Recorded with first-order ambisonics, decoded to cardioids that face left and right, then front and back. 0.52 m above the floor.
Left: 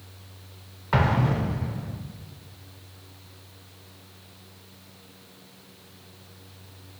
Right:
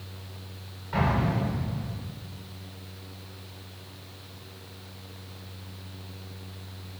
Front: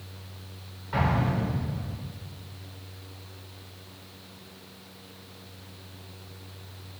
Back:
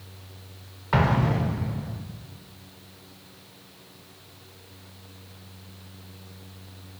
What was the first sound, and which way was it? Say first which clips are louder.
An explosion: left 3 dB, back 4 dB; 135° left.